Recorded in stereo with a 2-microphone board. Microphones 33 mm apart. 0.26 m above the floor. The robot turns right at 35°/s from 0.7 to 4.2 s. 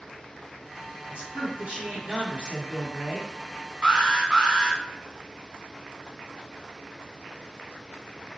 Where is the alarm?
25° right (ahead or behind), 1.9 m; by 4.8 s 20° right (ahead or behind), 1.9 m.